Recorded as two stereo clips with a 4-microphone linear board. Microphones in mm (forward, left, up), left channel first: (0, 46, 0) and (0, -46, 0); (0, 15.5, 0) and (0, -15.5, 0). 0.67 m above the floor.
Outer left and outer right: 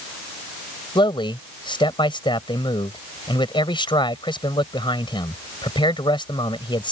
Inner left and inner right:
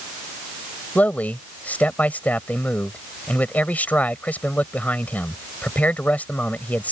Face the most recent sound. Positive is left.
turn(degrees=60)  # may be behind; listen again after turning